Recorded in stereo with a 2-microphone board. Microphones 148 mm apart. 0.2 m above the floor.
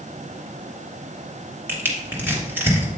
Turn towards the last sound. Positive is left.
turn(degrees=-15)  # may be behind; listen again after turning